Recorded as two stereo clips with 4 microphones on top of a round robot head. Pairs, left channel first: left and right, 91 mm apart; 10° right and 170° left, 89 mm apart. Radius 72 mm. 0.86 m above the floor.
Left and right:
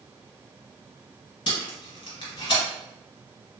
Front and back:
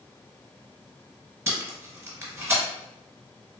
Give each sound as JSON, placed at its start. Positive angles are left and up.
{"t": 1.5, "sound": "tape being pulled", "azimuth_deg": 115, "distance_m": 1.4}